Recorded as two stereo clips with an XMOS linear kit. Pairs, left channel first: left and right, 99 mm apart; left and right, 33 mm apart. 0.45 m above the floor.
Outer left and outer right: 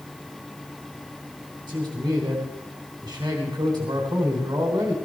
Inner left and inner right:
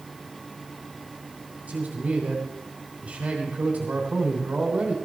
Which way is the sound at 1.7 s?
30° right (ahead or behind).